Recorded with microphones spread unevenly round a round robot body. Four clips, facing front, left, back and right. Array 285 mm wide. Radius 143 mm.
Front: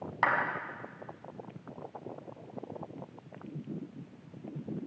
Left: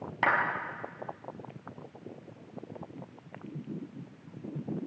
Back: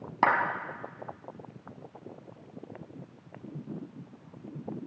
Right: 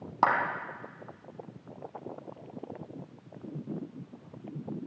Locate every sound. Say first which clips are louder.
0.2 s a clap: right 3 dB, back 4 dB; 160° right, 5 m